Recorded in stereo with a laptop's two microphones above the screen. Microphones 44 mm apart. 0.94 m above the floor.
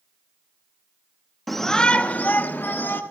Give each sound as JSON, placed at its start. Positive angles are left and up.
{"t": 1.5, "sound": "a shout", "side_deg": 0, "distance_m": 0.9}